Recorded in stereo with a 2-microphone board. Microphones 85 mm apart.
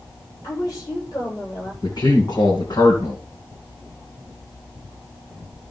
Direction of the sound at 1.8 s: 50° left (ahead or behind).